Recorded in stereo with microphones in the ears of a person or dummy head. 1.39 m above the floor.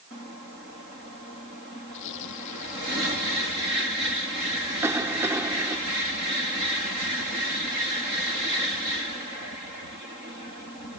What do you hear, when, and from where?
1.9 s tearing paper: 65° left (ahead or behind)
4.8 s a cough: 10° right (ahead or behind)